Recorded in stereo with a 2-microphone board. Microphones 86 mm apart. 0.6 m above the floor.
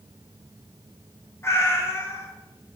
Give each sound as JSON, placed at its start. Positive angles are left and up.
{"t": 1.4, "sound": "a cat meowing", "side_deg": 30, "distance_m": 0.6}